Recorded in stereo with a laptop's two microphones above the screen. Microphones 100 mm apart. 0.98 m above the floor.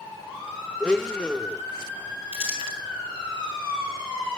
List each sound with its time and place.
0.8 s a blender: 10° left (ahead or behind), 0.7 m
2.3 s crumpling: 80° left, 5 m